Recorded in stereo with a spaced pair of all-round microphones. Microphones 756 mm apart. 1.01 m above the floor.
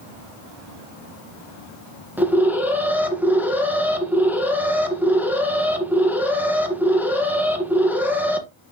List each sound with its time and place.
2.2 s an alarm: centre (ahead or behind), 1.3 m